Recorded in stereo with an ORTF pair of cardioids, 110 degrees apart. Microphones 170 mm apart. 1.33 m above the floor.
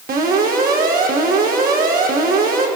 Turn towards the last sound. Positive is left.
turn(degrees=-60)